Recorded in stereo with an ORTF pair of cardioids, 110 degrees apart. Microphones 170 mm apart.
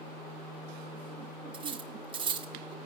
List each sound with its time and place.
1.5 s cutlery clinking: 30° right, 0.8 m